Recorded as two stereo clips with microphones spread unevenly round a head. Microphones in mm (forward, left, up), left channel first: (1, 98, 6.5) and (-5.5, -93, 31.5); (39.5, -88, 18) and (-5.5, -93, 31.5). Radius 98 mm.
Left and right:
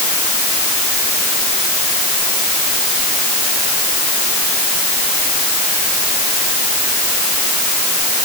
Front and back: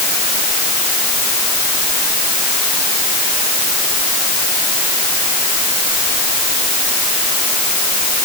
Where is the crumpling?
No crumpling in this recording.